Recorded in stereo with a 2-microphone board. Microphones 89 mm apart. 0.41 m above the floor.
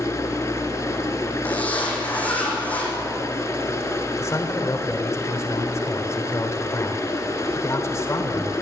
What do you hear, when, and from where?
0.0 s running water: 35° left (ahead or behind), 2.5 m
1.4 s a zipper: 15° left (ahead or behind), 5.5 m
4.2 s a man speaking: 35° left (ahead or behind), 1.8 m